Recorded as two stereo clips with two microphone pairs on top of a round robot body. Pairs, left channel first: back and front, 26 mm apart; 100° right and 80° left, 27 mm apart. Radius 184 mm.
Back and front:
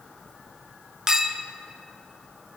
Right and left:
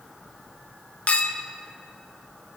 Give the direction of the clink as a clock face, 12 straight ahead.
2 o'clock.